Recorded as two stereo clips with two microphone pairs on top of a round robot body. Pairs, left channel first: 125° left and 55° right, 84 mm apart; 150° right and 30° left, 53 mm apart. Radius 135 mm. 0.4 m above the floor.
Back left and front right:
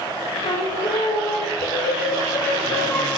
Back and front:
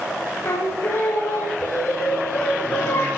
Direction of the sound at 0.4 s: 155° left.